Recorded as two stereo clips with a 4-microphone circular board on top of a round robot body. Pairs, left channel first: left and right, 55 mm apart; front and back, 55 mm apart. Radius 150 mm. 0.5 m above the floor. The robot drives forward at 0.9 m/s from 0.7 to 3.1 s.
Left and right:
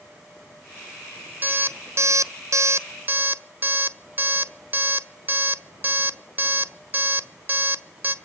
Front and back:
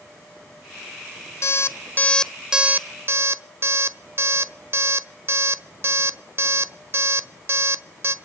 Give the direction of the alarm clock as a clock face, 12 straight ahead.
1 o'clock.